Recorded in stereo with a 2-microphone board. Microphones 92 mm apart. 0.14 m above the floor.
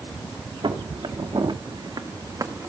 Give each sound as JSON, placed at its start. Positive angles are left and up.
{"t": 0.6, "sound": "footsteps", "side_deg": -70, "distance_m": 2.5}